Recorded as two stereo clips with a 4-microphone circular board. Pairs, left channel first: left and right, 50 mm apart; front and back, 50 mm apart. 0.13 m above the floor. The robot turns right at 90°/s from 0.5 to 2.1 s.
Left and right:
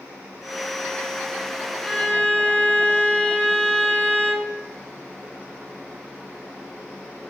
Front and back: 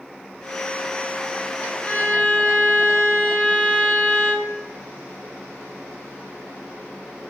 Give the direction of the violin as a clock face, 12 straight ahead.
11 o'clock.